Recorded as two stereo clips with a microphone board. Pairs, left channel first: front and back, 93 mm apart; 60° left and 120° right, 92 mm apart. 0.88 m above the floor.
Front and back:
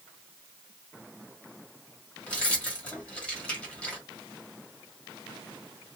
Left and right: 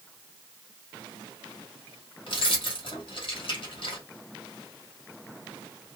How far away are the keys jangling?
About 1.2 m.